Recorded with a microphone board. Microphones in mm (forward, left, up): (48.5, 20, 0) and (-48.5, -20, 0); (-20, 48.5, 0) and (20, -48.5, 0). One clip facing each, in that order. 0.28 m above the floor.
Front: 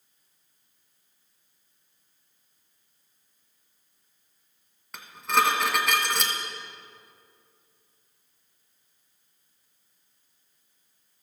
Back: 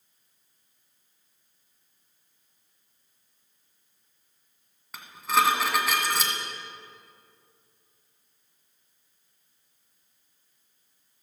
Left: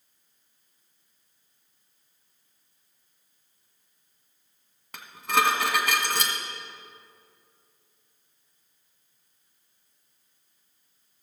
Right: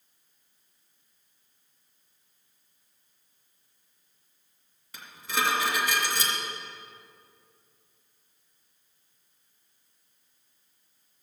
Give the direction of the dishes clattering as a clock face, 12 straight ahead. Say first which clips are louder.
Even, left 6 dB; 8 o'clock.